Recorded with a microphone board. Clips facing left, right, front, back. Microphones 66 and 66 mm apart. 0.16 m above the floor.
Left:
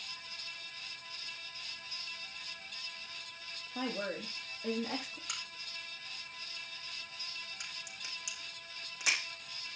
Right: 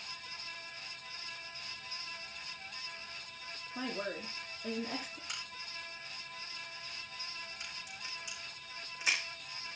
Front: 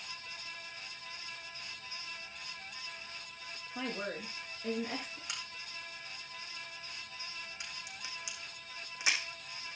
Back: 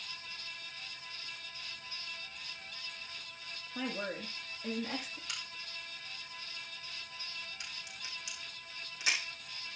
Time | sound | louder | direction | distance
3.8 | a woman speaking | left 2 dB, back 1 dB | 100° left | 7.5 m
5.3 | a crack | right 1 dB, front 1 dB | 70° left | 6.5 m